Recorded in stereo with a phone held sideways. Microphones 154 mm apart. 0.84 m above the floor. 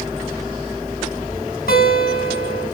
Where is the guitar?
75° left (ahead or behind), 4 m.